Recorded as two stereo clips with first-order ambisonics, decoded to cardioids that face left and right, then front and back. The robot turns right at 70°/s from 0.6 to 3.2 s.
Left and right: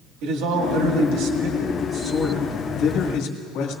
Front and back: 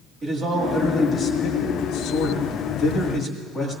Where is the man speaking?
110° right, 2.0 m; by 3.8 s 70° left, 2.0 m.